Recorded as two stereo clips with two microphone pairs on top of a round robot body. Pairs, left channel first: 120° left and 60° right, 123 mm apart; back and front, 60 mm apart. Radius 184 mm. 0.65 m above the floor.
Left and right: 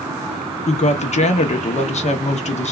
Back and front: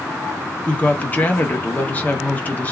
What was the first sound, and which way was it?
A woman speaking, 120° left.